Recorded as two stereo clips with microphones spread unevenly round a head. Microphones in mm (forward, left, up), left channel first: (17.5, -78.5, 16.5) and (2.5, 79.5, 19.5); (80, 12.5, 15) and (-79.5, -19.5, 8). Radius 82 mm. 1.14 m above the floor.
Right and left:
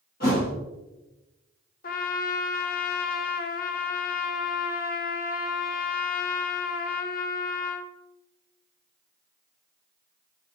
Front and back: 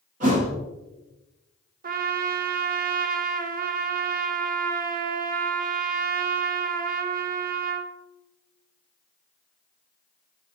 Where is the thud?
125° right, 4 m.